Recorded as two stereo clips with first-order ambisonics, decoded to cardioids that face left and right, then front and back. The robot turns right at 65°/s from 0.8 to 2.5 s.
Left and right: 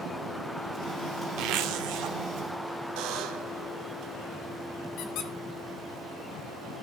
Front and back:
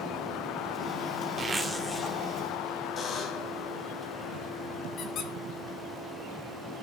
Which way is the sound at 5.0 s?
50° left.